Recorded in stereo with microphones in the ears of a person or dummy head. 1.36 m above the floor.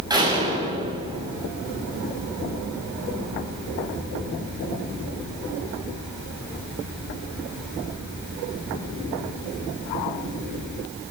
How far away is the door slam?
About 6.5 m.